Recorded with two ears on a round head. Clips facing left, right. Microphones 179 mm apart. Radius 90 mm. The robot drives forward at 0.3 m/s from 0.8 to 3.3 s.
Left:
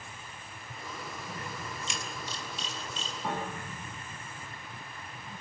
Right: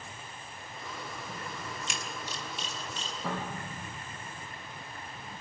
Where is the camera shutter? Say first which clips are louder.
Even; 50° right (ahead or behind), 4.5 m; by 3.1 s 45° right (ahead or behind), 5 m.